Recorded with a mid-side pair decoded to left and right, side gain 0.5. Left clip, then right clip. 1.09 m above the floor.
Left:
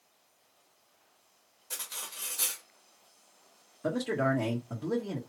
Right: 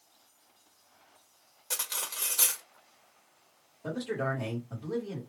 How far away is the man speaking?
About 1.2 m.